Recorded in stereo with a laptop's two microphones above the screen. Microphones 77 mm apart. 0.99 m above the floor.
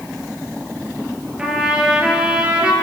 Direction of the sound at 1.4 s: 15° right (ahead or behind).